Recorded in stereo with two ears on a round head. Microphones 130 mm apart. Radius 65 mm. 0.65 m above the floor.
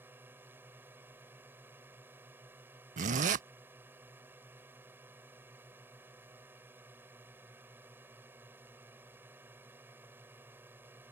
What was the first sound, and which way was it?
A drone, 15° right (ahead or behind).